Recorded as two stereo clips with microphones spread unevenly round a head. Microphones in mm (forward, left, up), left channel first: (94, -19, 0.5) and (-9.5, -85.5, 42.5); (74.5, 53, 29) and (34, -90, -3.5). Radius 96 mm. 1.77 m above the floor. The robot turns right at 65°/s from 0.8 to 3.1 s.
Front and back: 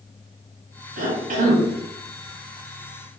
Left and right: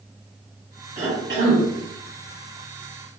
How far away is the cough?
About 1.3 m.